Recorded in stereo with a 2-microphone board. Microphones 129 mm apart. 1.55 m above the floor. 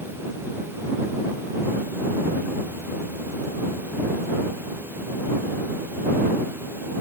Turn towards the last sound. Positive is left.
No sound to turn to.